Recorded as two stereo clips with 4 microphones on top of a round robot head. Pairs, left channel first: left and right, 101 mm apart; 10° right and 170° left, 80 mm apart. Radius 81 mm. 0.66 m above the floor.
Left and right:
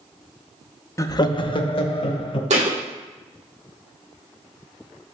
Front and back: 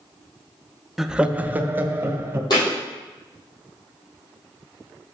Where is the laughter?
85° left, 0.5 m; by 2.4 s 110° left, 1.4 m.